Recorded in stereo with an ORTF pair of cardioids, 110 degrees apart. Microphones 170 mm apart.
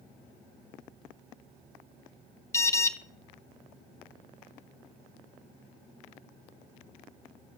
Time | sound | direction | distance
2.5 | an alarm | 15° left | 0.7 m